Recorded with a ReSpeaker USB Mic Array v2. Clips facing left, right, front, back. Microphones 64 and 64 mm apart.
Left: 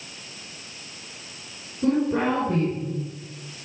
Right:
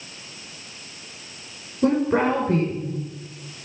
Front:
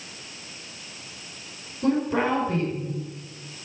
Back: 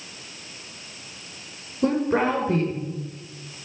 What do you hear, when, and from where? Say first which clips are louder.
1.8 s a woman speaking: right 2 dB, back 2 dB; 130° right, 5.5 m